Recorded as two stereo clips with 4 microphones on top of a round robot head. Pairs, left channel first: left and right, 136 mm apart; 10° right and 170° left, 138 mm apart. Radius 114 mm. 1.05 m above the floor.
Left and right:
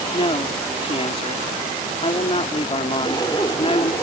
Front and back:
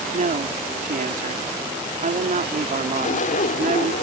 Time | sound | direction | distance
0.1 | a man speaking | 140° left | ?
2.9 | a zipper | 20° left | ?